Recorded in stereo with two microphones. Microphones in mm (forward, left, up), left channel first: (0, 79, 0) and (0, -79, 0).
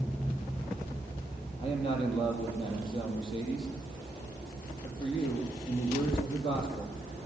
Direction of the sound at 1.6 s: 30° left (ahead or behind).